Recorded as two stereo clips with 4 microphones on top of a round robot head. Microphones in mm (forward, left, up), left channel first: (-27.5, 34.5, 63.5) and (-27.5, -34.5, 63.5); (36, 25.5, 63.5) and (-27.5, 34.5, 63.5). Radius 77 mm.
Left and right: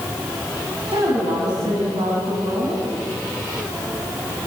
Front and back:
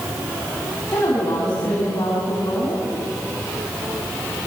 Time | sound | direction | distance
0.9 | a woman speaking | 65° right | 7 m